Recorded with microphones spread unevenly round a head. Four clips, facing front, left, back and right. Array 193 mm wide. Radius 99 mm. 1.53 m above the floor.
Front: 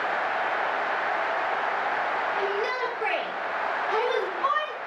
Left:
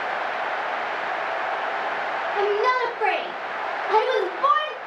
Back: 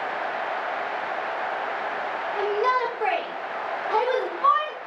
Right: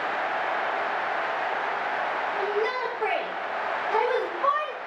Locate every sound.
2.4 s a shout: 100° left, 5.5 m; by 4.8 s 80° left, 4 m